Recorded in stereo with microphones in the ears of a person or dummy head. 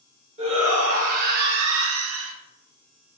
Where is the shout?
35° right (ahead or behind), 1.4 m; by 2.3 s 75° right (ahead or behind), 0.7 m.